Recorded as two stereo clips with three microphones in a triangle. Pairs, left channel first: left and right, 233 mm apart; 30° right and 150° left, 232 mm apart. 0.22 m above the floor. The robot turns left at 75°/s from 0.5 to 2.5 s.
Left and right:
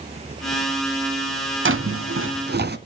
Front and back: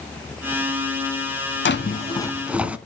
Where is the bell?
I don't hear a bell.